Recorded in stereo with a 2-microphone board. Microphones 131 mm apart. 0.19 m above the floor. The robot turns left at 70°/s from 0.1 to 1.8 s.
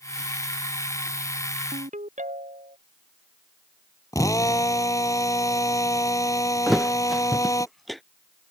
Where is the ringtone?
75° right (ahead or behind); by 2.8 s 70° right (ahead or behind).